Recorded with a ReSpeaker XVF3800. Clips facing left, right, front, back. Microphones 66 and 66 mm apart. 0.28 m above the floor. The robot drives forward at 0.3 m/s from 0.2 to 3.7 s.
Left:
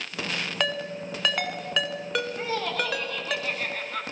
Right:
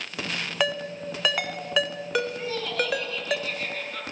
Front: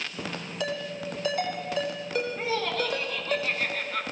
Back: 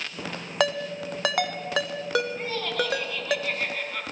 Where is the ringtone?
175° right, 0.8 m; by 3.4 s straight behind, 1.6 m.